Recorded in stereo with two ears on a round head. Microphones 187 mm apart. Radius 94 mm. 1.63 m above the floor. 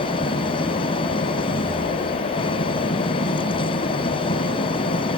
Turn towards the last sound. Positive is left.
turn(degrees=25)  # may be behind; listen again after turning